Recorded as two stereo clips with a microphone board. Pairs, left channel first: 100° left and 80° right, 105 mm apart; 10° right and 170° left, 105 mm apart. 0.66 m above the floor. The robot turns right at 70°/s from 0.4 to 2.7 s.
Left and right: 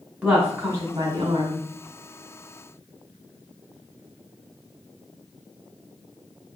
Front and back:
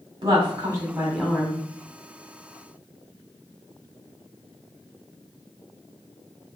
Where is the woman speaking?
155° right, 1.9 m; by 1.6 s 65° right, 1.9 m.